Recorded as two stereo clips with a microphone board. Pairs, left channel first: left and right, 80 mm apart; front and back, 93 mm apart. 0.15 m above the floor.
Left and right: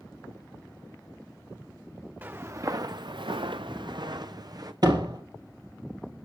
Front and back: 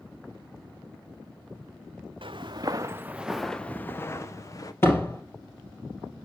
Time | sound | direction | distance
2.2 | footsteps | 155° right | 1.1 m
4.8 | a door slam | 60° right | 3 m